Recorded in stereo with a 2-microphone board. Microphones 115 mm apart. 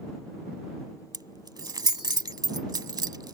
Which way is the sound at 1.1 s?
35° right (ahead or behind).